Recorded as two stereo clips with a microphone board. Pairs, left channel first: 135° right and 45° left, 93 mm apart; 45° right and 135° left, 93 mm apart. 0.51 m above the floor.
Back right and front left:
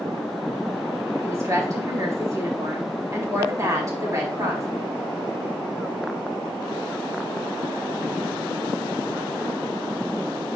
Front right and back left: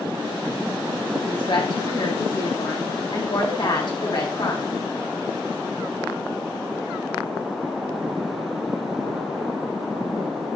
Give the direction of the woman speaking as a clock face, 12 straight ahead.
12 o'clock.